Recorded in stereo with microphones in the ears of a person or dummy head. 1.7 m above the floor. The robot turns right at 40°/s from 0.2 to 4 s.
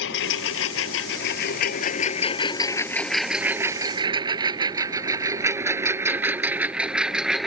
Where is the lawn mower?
70° left (ahead or behind); by 7.5 s centre (ahead or behind).